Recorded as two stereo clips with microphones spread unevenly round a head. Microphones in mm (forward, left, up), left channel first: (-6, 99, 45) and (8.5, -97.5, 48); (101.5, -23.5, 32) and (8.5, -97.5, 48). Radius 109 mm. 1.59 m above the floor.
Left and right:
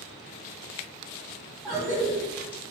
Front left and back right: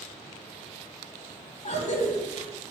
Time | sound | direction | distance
1.6 | a cough | straight ahead | 1.1 m